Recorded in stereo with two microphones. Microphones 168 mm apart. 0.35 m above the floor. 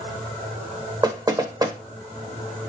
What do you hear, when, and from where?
1.0 s knocking: 25° right (ahead or behind), 0.8 m